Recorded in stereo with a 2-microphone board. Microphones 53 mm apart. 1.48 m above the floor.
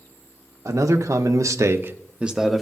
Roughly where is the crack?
I don't hear a crack.